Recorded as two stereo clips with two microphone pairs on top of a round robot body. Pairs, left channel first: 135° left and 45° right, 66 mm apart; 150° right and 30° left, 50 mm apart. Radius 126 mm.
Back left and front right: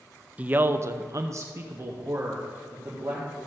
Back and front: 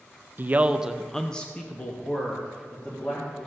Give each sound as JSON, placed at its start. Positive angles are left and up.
{"t": 0.4, "sound": "a man speaking", "azimuth_deg": 30, "distance_m": 0.7}